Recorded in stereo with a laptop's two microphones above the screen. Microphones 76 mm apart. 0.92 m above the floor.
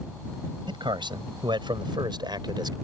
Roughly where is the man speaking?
Right.